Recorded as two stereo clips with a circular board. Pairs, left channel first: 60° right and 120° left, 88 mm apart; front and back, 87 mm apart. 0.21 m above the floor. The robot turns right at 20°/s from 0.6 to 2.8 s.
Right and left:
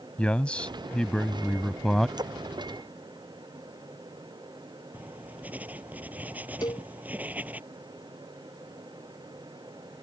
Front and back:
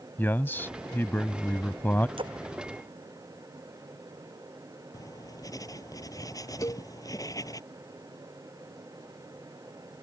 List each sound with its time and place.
0.2 s a man speaking: 5° right; by 2.1 s 25° left
2.2 s a splash: 160° left; by 2.4 s 165° left
4.9 s writing: 45° left
6.6 s a cowbell: 40° right